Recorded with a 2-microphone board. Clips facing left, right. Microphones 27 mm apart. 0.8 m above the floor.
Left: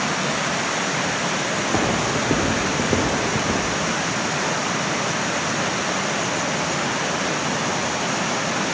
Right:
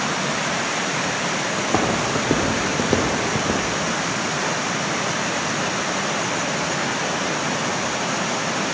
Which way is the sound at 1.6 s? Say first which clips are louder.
Right 1 dB; 75° right (ahead or behind).